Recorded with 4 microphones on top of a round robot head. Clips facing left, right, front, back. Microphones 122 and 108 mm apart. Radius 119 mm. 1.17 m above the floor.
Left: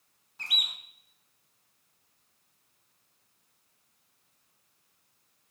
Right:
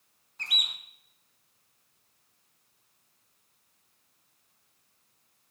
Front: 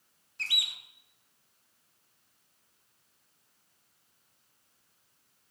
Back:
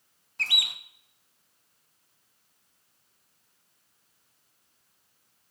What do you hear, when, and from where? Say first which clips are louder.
0.4 s a bird: right 1 dB, back 5 dB; 175° left, 0.7 m